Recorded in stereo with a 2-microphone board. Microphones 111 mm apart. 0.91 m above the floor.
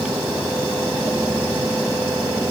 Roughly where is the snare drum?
No snare drum in this recording.